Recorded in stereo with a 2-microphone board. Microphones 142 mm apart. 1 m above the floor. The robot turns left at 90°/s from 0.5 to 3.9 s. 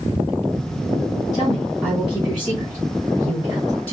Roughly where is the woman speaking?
Left.